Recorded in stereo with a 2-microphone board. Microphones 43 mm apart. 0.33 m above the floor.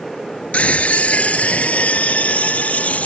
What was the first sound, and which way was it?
A scream, 35° left (ahead or behind).